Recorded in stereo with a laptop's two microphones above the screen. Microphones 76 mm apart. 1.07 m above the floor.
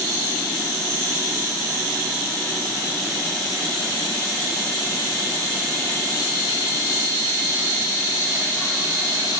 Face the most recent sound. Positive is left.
No sound to turn to.